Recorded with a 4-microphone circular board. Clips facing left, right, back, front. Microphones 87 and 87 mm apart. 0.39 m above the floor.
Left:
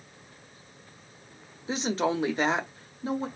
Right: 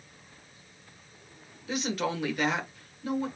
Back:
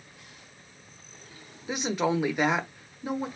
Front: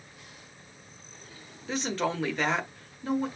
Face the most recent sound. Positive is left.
turn(degrees=120)